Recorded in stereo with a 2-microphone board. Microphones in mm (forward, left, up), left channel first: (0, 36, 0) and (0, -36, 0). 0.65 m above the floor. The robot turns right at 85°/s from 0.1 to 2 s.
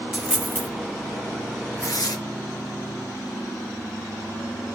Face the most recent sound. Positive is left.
turn(degrees=60)  # may be behind; listen again after turning